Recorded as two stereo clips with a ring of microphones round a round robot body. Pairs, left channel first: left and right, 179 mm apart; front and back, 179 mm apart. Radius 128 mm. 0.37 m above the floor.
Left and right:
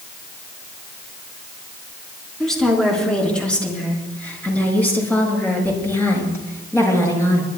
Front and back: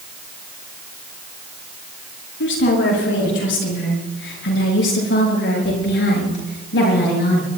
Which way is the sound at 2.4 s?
5° left.